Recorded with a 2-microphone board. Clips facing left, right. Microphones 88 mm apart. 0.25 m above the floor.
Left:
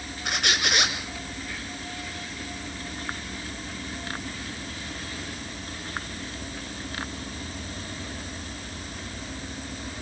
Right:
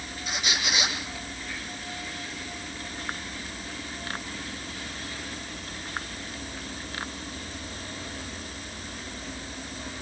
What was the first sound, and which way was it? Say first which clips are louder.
A squeak: left 4 dB; 70° left (ahead or behind).